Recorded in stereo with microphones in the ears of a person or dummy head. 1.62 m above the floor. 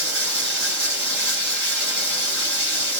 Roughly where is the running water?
Right.